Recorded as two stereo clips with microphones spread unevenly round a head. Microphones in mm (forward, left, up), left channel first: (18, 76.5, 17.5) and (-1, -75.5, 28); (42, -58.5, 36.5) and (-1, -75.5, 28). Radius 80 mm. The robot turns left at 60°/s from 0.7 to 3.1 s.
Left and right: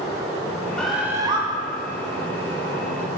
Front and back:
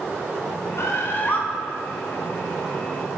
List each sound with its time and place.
0.8 s a bird: straight ahead, 0.9 m; by 1.4 s 40° right, 0.9 m